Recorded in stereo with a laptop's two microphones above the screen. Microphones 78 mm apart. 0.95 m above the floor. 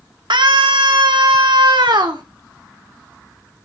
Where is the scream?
75° right (ahead or behind), 1.8 m; by 2.2 s 70° right (ahead or behind), 2.5 m.